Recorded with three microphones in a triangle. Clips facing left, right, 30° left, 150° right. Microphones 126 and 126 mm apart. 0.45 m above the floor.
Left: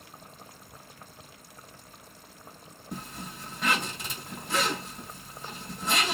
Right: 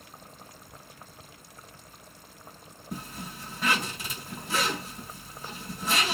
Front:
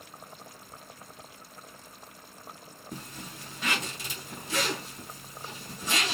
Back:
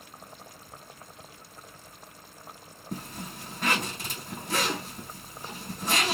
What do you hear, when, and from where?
2.9 s a zipper: 175° right, 4 m